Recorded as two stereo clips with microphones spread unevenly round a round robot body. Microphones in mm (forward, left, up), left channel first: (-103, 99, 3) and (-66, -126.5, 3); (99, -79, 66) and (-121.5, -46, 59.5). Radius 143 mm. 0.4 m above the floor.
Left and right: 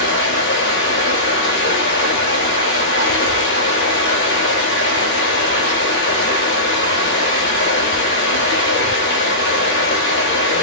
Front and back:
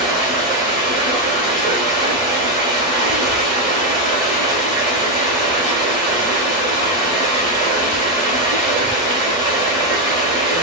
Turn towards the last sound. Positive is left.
turn(degrees=105)